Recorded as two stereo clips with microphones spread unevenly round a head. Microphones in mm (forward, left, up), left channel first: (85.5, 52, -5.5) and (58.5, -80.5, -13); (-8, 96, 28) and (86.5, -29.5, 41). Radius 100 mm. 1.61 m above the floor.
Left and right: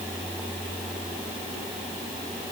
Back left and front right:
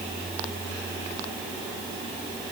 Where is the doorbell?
I don't hear a doorbell.